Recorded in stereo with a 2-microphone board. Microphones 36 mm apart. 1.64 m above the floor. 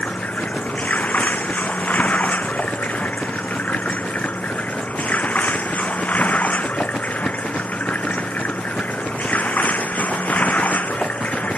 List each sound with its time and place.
0.0 s running water: 45° left (ahead or behind)